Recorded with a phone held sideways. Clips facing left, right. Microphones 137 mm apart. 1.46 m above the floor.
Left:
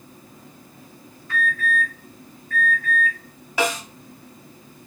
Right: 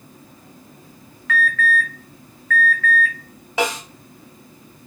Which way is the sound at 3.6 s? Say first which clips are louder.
Right 1 dB; 25° right (ahead or behind).